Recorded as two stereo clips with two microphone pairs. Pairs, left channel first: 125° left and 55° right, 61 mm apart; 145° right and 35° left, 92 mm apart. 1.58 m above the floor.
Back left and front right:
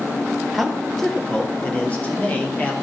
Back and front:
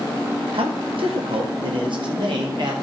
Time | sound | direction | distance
0.5 | a man speaking | 35° left | 1.3 m